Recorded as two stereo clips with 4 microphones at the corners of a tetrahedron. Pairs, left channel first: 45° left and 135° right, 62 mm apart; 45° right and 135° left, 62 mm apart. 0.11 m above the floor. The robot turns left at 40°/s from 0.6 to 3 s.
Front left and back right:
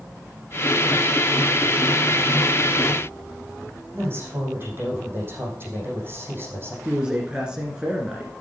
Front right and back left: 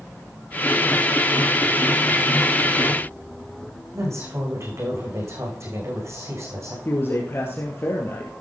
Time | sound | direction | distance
3.9 | a woman speaking | 175° left | 6.5 m
6.8 | a man speaking | 70° right | 2 m